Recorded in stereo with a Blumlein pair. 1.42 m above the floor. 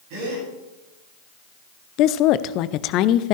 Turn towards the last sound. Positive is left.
turn(degrees=40)